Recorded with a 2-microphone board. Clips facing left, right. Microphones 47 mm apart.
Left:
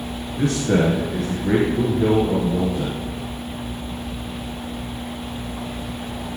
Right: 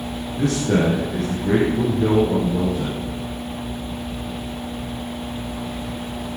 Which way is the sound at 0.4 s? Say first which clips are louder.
Even; 10° left (ahead or behind).